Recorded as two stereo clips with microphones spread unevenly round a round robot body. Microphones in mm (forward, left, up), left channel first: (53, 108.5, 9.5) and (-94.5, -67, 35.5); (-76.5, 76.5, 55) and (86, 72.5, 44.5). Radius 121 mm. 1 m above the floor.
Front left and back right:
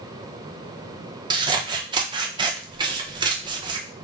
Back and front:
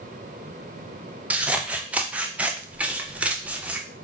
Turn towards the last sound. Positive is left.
turn(degrees=-65)